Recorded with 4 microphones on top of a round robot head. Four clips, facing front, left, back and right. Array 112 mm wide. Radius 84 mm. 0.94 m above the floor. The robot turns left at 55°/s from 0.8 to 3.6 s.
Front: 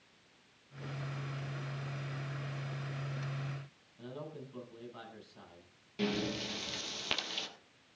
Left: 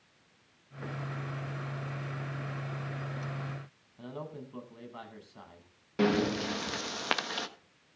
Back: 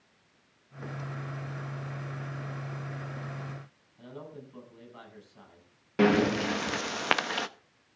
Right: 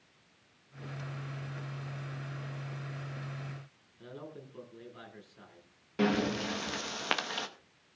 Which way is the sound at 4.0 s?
95° left.